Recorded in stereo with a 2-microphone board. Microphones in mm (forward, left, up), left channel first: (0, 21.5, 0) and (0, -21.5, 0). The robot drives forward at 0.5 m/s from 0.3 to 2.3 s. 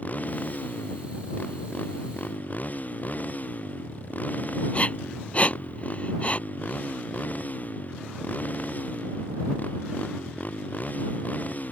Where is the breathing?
35° left (ahead or behind).